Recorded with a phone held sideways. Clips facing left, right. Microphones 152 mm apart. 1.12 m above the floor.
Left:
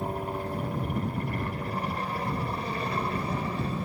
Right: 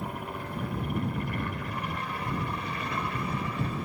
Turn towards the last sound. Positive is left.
turn(degrees=30)  # may be behind; listen again after turning